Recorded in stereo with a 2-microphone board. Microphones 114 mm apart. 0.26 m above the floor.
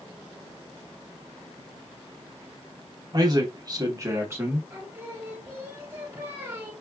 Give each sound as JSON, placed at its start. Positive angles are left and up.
{"t": 3.1, "sound": "a man speaking", "side_deg": -40, "distance_m": 1.2}
{"t": 4.7, "sound": "singing", "side_deg": -20, "distance_m": 1.6}